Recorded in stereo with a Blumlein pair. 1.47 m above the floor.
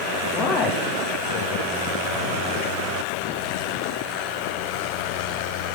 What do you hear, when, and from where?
0.3 s a man speaking: 30° left, 1.9 m